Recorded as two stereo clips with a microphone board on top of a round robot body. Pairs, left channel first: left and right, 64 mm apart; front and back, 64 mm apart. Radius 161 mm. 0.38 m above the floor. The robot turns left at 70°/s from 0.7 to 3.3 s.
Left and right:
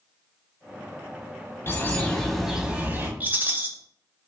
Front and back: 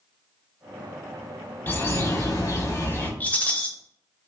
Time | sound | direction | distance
1.7 | a bird | 50° left | 1.2 m
3.2 | a rattle | 45° right | 0.9 m